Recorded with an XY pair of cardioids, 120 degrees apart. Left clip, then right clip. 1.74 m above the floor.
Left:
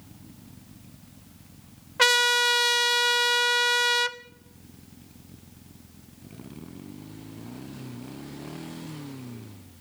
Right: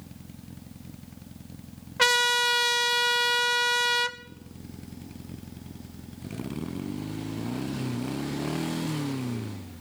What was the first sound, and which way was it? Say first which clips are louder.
A trumpet: left 2 dB; 10° left.